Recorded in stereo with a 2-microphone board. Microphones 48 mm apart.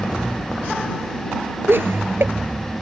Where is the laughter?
55° right (ahead or behind).